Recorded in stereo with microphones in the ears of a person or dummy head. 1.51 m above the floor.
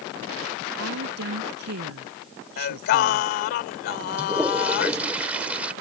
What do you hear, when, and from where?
0.8 s a woman speaking: 80° right
2.6 s singing: 60° left (ahead or behind)
4.2 s a toilet flushing: 10° right (ahead or behind)